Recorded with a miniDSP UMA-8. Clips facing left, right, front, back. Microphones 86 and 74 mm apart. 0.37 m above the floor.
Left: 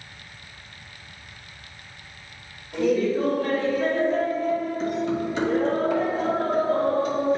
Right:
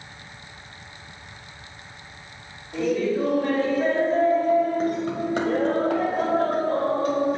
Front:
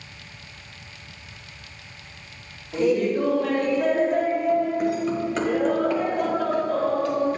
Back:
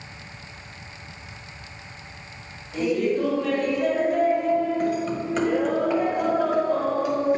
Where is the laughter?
5° left, 1.4 m; by 7.4 s 105° right, 2.5 m.